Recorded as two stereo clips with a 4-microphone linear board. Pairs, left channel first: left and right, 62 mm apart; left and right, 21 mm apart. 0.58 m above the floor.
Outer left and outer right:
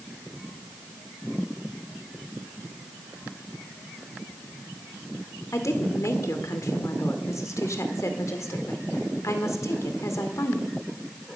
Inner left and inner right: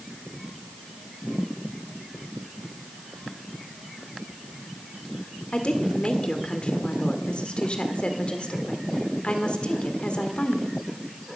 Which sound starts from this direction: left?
A woman speaking, at 5.5 s.